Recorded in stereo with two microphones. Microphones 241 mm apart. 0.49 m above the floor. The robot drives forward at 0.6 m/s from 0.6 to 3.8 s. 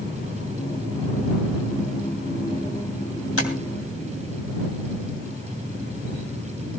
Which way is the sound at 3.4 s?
70° left (ahead or behind).